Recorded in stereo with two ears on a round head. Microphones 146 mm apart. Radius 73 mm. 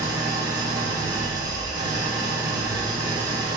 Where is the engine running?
25° right (ahead or behind), 0.9 m.